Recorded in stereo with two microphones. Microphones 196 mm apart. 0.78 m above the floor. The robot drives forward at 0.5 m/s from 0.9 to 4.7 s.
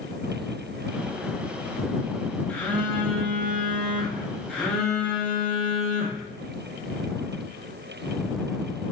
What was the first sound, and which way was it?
A phone buzzing, 10° left (ahead or behind).